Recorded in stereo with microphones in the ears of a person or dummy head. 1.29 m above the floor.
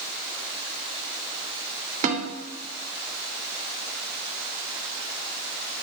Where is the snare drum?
45° right (ahead or behind), 3 m.